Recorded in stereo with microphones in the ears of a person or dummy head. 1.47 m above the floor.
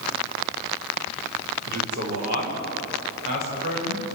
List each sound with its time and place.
1.7 s a man speaking: 50° right (ahead or behind), 5 m; by 4.0 s 45° right (ahead or behind), 7.5 m